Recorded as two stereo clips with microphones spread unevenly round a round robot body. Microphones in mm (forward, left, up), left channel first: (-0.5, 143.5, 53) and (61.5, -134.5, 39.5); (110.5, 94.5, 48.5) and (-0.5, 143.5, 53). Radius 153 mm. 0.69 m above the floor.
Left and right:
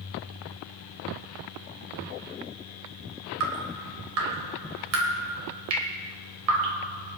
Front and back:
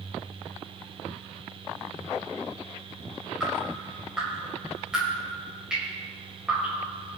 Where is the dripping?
120° right, 2 m.